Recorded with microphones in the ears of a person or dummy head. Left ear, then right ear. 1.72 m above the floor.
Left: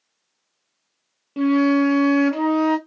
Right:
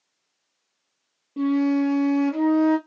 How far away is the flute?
About 0.7 m.